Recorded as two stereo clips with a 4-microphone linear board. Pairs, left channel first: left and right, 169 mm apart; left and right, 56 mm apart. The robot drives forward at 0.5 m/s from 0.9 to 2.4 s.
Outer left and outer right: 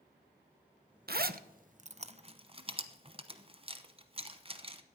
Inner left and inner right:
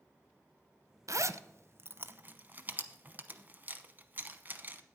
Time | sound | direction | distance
1.1 | a zipper | 65° right (ahead or behind) | 0.5 m